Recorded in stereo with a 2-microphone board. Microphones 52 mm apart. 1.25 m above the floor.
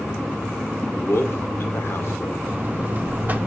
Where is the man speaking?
65° left (ahead or behind), 1.2 m.